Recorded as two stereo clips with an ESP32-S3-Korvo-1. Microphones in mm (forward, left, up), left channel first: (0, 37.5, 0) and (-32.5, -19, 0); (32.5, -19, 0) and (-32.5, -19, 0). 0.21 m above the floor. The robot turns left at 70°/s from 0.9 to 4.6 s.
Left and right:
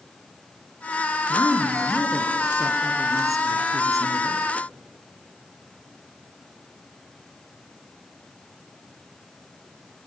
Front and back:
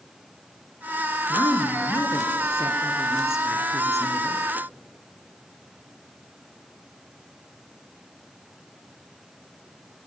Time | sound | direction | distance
1.3 | a woman speaking | 40° left | 2.5 m